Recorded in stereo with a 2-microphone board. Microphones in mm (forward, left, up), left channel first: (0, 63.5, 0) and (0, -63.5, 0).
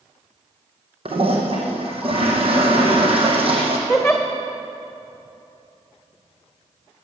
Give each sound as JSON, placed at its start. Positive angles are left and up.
{"t": 1.1, "sound": "a toilet flushing", "side_deg": -50, "distance_m": 2.5}
{"t": 3.9, "sound": "a giggle", "side_deg": 0, "distance_m": 2.5}